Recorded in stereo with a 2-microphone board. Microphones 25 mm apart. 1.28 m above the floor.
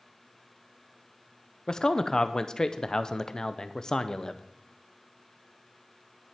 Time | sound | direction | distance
1.7 | a man speaking | 25° left (ahead or behind) | 0.6 m